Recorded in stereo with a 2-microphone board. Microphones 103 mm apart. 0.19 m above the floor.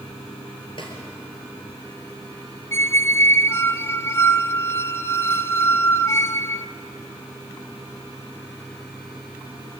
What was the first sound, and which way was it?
A snare drum, 55° left (ahead or behind).